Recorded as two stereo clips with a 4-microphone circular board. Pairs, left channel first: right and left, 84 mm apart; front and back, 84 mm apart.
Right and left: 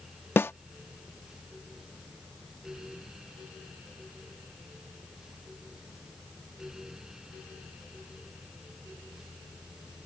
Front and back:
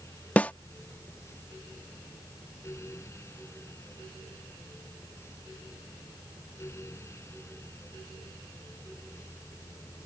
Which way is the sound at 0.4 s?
55° right.